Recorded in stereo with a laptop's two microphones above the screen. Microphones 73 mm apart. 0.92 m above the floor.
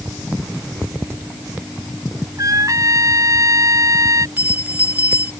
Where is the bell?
20° right (ahead or behind).